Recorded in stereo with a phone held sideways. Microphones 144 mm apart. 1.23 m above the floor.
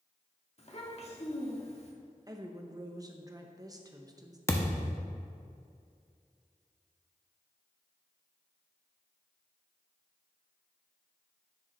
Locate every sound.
0.6 s a child speaking: 45° left (ahead or behind), 1.4 m
2.3 s a woman speaking: 25° right (ahead or behind), 0.7 m
4.5 s a thud: 20° left (ahead or behind), 0.7 m